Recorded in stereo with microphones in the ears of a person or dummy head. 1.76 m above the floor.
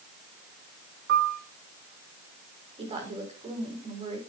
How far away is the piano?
About 1.2 m.